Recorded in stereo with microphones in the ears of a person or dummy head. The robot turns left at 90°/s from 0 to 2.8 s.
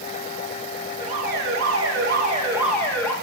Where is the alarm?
20° right, 3.5 m; by 3.1 s 175° left, 3.5 m.